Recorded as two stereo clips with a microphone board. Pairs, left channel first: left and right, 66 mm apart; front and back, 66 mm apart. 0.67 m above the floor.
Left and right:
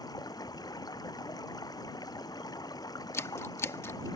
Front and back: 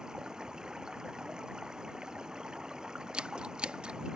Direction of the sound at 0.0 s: 100° left.